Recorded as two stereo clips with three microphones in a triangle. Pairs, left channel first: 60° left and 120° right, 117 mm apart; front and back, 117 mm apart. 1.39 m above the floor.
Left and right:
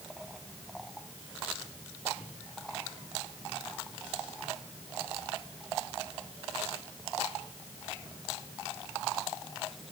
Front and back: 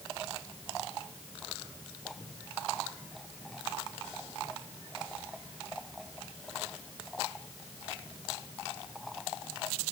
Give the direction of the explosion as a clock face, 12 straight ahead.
I don't hear an explosion.